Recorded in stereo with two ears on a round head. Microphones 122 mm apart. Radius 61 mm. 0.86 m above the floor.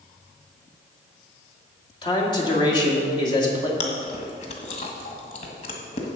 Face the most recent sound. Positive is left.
turn(degrees=50)  # may be behind; listen again after turning